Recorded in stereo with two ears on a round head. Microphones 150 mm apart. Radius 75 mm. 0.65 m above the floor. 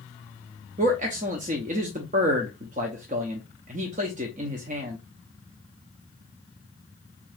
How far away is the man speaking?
About 0.7 m.